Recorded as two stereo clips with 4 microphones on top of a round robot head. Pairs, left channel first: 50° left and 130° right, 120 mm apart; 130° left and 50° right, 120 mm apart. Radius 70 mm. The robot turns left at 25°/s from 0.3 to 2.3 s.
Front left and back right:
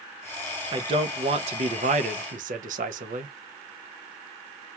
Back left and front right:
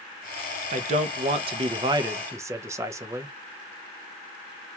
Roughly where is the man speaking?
Right.